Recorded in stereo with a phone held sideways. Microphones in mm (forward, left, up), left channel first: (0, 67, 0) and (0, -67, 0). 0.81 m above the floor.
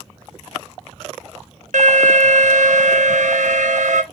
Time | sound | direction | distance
1.7 | an alarm | 65° right (ahead or behind) | 0.6 m